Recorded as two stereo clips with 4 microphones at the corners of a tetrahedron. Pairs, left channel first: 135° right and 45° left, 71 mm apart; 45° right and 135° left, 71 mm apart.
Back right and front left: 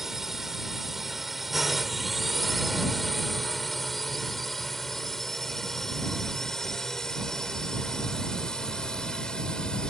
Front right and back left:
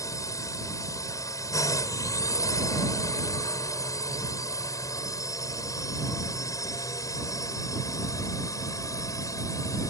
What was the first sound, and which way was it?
A drone, 40° right.